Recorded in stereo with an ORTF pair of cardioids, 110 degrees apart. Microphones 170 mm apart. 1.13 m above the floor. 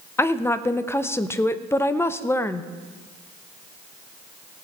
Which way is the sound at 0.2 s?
15° left.